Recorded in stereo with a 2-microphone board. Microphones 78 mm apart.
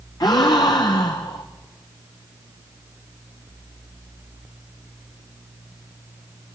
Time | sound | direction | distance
0.2 | a gasp | 60° left (ahead or behind) | 3 m